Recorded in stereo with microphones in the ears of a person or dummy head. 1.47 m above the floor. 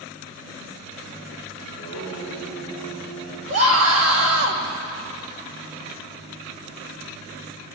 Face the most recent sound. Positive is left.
turn(degrees=-75)  # may be behind; listen again after turning